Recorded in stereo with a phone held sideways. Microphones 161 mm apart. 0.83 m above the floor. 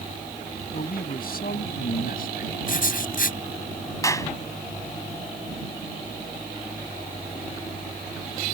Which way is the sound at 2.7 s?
60° left (ahead or behind).